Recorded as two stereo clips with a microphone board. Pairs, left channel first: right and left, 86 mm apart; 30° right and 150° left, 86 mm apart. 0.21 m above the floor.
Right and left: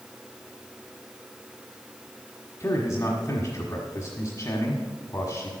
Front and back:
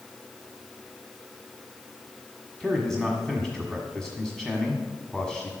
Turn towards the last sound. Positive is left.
turn(degrees=-115)